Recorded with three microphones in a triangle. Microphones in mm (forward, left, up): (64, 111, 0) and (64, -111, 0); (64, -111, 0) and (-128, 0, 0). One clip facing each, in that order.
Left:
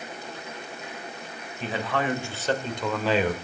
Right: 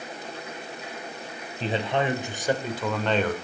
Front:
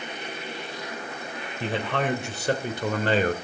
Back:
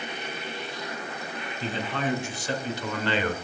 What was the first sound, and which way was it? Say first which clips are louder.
A man speaking: right 2 dB, front 3 dB; 30° right.